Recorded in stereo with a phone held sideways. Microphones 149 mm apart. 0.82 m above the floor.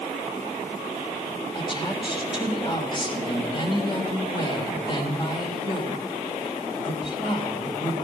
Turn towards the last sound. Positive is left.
turn(degrees=30)  # may be behind; listen again after turning